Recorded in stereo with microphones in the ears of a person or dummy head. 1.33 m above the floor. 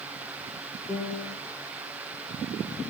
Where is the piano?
15° left (ahead or behind), 4 m.